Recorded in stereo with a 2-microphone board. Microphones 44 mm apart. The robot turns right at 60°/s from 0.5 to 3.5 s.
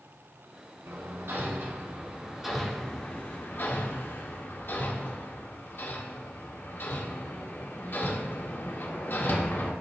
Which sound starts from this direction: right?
Hammering, at 0.9 s.